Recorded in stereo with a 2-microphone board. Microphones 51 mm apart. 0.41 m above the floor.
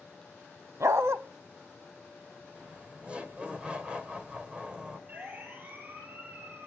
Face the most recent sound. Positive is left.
turn(degrees=-45)  # may be behind; listen again after turning